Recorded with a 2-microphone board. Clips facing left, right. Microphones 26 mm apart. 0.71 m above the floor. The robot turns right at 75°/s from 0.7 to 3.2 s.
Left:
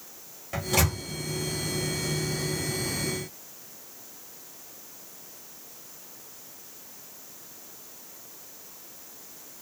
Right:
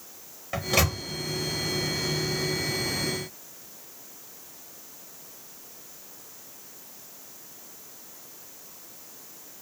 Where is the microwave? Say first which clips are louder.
Right 2 dB; 15° right (ahead or behind), 1.0 m; by 1.0 s 30° right (ahead or behind), 1.0 m.